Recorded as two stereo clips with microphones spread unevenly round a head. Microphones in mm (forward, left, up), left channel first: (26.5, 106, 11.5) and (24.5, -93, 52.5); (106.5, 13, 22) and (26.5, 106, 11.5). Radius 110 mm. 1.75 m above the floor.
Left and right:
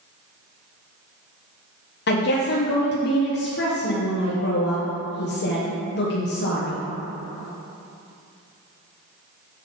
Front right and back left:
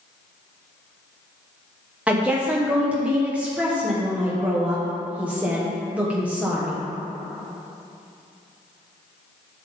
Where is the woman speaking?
50° left, 1.3 m.